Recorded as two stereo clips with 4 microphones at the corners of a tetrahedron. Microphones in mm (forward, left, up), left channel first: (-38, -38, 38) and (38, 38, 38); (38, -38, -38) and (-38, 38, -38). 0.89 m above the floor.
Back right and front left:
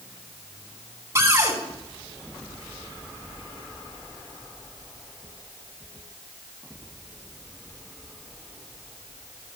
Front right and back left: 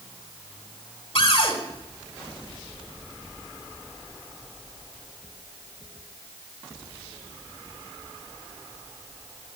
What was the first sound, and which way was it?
A cupboard door, 15° right.